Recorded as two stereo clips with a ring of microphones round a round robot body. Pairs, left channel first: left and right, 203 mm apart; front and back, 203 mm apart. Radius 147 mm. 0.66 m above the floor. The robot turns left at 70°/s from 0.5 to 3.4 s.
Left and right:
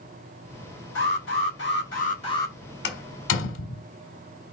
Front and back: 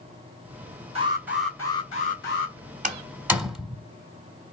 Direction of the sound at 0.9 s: 125° left.